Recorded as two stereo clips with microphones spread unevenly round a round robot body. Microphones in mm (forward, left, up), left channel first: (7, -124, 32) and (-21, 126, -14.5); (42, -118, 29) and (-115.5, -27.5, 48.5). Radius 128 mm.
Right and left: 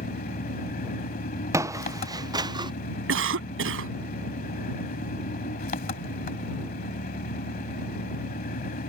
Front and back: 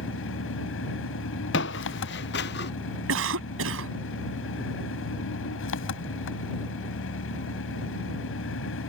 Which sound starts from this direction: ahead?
Footsteps, at 1.5 s.